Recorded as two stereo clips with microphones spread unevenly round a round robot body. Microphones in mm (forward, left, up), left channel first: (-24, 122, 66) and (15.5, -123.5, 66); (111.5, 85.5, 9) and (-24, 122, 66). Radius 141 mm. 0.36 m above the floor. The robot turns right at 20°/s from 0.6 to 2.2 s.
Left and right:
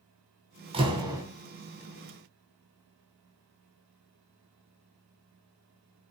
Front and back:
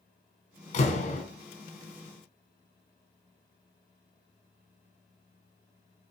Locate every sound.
0.7 s a door slam: 15° right, 3 m; by 1.2 s 5° right, 3 m